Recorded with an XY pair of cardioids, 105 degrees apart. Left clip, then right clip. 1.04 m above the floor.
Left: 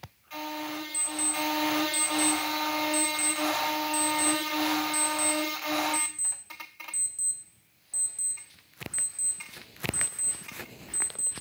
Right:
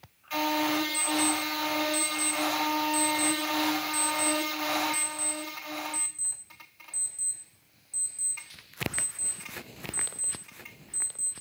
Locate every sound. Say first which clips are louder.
0.9 s an alarm clock: right 4 dB; 20° left, 2.5 m